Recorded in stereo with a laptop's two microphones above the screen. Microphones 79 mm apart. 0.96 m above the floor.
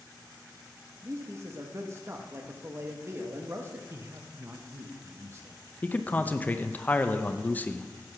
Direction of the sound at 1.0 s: 35° right (ahead or behind).